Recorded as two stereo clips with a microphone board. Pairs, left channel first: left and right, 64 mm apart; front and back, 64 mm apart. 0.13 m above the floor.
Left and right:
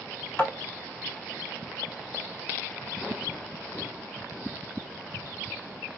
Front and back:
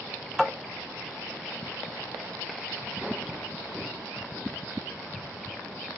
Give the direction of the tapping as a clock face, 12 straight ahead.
9 o'clock.